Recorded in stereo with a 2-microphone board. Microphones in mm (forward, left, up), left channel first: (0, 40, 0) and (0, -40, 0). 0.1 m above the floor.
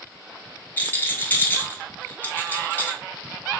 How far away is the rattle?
About 0.9 m.